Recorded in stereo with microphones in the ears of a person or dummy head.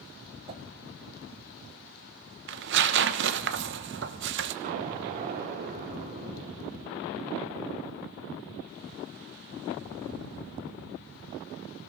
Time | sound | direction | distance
0.5 | a whoosh | 35° right (ahead or behind) | 1.2 m
2.5 | tearing paper | 55° right (ahead or behind) | 0.8 m
4.6 | an explosion | 40° right (ahead or behind) | 3 m